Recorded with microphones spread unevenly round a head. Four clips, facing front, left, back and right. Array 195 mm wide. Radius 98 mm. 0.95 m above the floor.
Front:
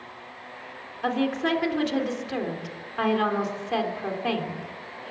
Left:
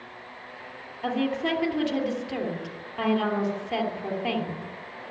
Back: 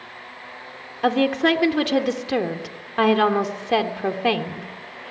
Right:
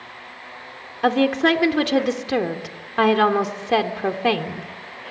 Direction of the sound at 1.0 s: 130° right.